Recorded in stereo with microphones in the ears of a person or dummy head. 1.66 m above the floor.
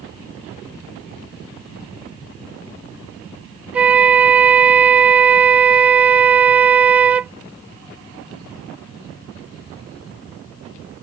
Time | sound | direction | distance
3.7 | a flute | 10° right (ahead or behind) | ?